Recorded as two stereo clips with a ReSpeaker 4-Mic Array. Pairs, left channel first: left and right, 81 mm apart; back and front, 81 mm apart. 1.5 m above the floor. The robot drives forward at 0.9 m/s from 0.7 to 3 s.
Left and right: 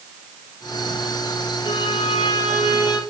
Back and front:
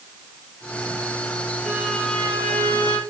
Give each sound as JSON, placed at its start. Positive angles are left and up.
{"t": 1.6, "sound": "a violin", "azimuth_deg": 85, "distance_m": 2.0}